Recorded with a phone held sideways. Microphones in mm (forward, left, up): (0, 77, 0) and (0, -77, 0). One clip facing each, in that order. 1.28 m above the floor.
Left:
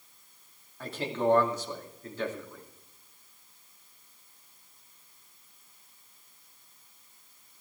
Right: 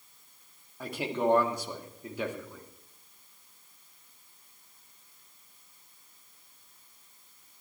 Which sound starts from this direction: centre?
A man speaking, at 0.8 s.